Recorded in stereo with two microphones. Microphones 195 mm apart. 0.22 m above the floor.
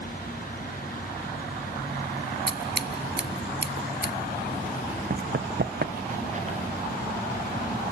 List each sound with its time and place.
2.5 s scissors: 80° right, 0.8 m
5.1 s running footsteps: 50° right (ahead or behind), 0.6 m; by 6.6 s 35° right (ahead or behind), 1.5 m